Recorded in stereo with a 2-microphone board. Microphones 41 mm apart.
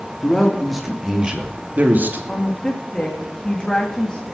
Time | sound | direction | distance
0.2 | a man speaking | 10° left (ahead or behind) | 2.5 m
2.3 | a woman speaking | 20° left (ahead or behind) | 2 m